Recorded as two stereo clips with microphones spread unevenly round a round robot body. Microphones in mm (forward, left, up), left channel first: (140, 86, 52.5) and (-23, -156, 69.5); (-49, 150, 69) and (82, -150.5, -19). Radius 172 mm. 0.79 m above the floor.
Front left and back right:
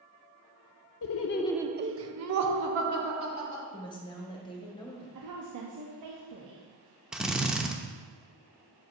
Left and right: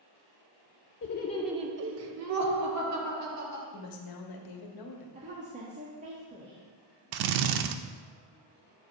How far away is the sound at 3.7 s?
About 1.2 m.